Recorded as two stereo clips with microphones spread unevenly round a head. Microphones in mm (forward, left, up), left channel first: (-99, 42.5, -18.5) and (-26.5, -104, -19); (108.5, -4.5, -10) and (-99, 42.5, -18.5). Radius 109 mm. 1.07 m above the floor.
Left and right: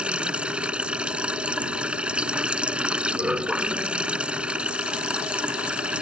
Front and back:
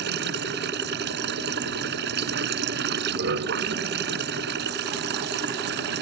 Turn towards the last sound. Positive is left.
turn(degrees=-145)